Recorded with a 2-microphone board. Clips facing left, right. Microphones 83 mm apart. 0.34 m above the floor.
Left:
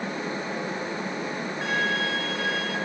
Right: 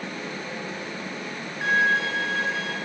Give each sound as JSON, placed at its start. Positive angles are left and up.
{"t": 1.6, "sound": "a violin", "side_deg": -20, "distance_m": 1.8}